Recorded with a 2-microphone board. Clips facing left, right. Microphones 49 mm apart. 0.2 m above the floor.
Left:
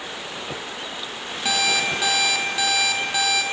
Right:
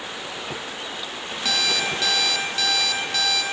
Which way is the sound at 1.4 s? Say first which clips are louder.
Left 2 dB; 15° left (ahead or behind).